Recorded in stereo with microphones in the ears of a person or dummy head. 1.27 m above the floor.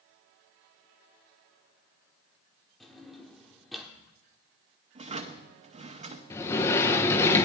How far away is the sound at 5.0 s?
About 0.9 m.